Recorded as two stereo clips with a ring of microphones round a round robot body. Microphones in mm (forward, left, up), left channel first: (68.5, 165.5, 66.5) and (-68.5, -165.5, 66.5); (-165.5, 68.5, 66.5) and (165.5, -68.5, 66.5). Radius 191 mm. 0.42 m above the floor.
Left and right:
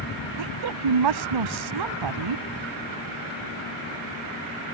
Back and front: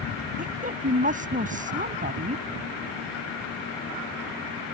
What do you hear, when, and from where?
0.4 s a woman speaking: 90° right